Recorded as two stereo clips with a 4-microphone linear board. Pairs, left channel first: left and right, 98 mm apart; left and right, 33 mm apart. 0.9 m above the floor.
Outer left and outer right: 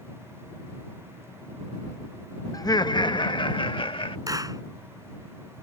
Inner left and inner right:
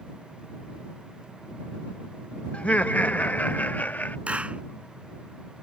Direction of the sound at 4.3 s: 40° right (ahead or behind).